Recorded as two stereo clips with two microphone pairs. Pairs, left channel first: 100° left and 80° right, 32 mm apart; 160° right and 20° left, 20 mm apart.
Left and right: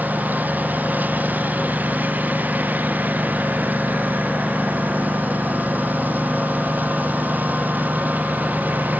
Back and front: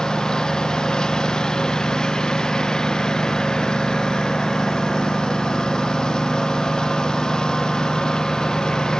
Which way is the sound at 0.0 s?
110° right.